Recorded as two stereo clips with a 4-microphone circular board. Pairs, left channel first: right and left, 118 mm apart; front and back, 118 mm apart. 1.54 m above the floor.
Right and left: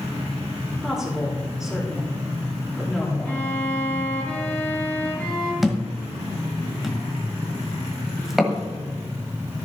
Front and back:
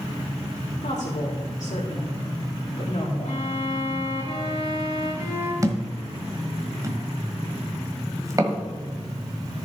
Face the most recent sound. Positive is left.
turn(degrees=175)